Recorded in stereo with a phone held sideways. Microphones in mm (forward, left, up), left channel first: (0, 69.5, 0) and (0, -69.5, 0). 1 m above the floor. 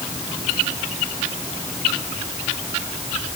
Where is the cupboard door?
I don't hear a cupboard door.